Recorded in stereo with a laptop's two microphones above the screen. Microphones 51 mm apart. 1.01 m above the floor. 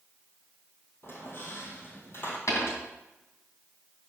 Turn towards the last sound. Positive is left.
turn(degrees=75)  # may be behind; listen again after turning